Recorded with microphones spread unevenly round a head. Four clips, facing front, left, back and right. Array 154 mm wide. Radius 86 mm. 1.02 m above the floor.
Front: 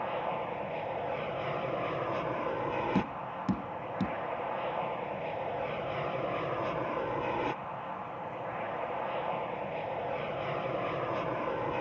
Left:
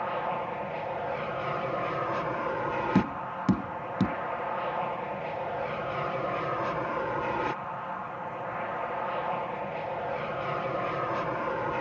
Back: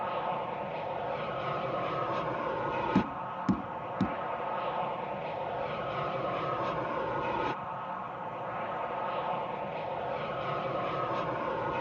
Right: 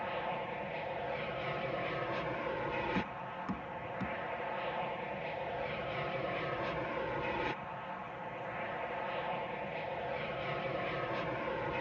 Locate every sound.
0.0 s an aircraft: 90° left
3.0 s tapping: 110° left